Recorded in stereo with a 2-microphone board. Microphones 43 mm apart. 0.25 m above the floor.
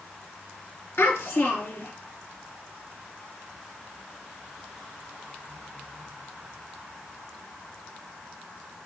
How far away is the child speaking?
About 3 m.